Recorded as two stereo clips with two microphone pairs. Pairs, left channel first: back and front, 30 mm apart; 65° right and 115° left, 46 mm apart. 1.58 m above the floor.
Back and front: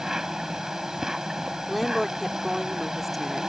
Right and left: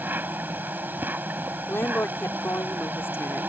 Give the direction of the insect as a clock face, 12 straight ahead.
10 o'clock.